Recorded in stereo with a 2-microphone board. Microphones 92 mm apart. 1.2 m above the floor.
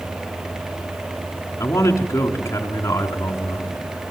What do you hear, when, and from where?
1.6 s a man speaking: 30° left (ahead or behind), 3.5 m